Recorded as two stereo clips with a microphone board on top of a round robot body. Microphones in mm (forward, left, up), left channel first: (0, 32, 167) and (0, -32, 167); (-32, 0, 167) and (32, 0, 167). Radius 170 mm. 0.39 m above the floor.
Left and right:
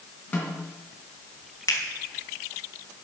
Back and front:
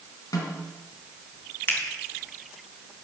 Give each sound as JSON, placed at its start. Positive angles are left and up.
{"t": 0.3, "sound": "a snare drum", "azimuth_deg": 160, "distance_m": 3.5}
{"t": 1.7, "sound": "a finger snap", "azimuth_deg": 125, "distance_m": 3.5}